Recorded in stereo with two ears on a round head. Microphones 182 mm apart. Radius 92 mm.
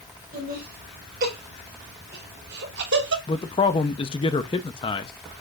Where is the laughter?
45° right (ahead or behind), 6 m; by 3.2 s 55° right (ahead or behind), 3 m.